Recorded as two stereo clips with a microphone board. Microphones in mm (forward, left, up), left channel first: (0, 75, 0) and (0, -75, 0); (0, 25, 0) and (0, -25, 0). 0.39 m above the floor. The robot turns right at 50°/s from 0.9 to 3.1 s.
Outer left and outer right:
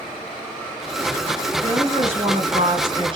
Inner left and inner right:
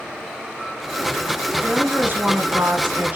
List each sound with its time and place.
1.6 s a woman speaking: 130° right, 1.9 m; by 3.2 s 55° right, 1.9 m